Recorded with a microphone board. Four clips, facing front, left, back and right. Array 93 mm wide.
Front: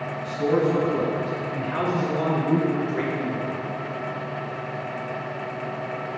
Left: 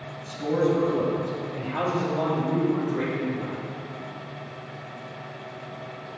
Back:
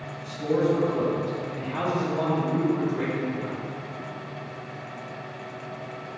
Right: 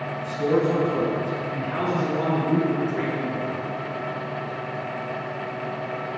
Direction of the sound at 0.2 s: 40° right.